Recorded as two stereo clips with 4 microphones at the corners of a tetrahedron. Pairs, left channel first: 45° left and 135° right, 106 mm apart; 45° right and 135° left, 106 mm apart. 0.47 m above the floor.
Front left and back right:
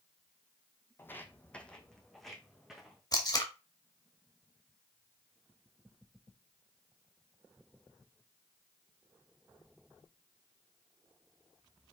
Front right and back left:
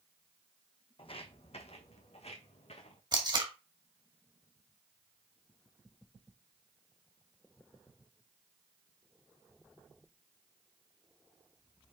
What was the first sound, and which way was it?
Footsteps, 20° right.